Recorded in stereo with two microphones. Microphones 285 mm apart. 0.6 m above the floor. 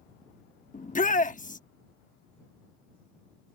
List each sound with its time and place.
0.7 s a shout: 30° left (ahead or behind)